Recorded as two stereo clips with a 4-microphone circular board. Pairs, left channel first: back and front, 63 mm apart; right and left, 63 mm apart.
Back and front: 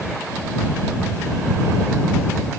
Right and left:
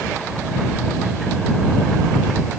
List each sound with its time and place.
Only background noise.